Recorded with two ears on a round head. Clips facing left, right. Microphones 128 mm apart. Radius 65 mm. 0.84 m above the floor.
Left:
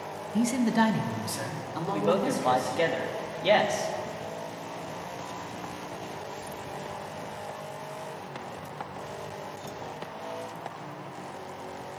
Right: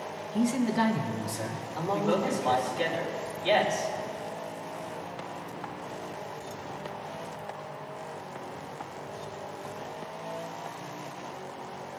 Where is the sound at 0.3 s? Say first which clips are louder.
Left 2 dB; 10° left (ahead or behind), 0.6 m; by 2.8 s 80° left, 3 m.